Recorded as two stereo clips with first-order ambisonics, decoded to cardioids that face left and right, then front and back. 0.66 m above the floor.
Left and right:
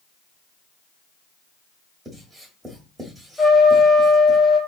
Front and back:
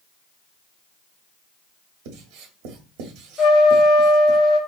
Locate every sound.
2.0 s writing: 175° right, 1.2 m
3.4 s a trumpet: 10° left, 1.0 m